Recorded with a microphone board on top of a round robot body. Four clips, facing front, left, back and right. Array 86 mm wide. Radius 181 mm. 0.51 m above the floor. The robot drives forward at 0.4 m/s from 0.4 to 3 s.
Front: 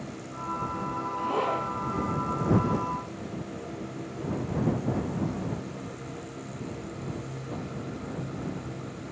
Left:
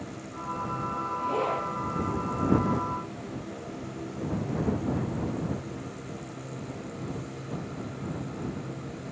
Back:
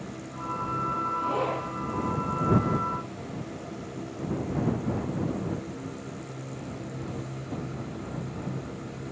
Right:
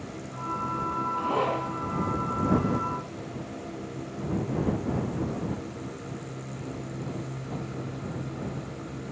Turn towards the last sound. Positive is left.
turn(degrees=-80)